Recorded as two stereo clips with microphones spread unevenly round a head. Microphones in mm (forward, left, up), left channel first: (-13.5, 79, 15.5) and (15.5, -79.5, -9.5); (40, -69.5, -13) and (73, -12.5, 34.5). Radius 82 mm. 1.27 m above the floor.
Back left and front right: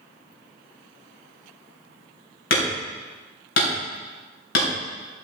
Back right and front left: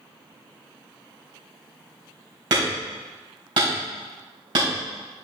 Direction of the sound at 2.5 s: 105° left.